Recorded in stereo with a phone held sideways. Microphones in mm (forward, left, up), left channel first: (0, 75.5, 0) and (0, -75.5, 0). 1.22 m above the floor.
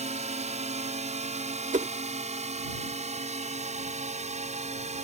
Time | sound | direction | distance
0.0 | a drone | 50° right (ahead or behind) | ?
1.7 | a whoosh | 55° right (ahead or behind) | ?